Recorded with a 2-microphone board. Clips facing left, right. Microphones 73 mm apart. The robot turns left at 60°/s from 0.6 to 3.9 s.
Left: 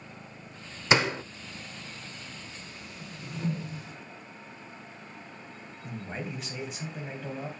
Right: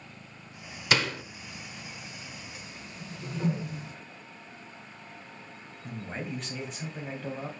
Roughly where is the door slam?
Left.